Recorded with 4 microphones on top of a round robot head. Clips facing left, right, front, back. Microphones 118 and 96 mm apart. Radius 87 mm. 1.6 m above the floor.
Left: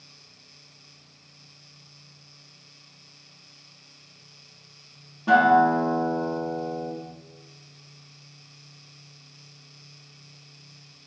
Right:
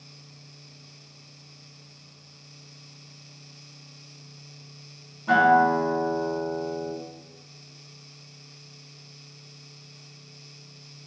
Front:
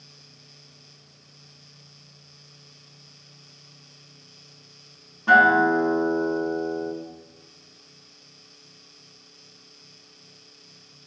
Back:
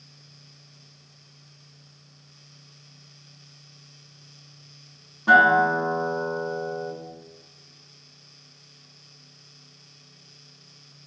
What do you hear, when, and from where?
5.3 s a guitar: 105° left, 1.1 m